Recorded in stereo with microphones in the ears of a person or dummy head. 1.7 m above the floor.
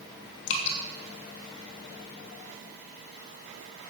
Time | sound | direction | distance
0.5 | dripping | 65° left (ahead or behind) | 3 m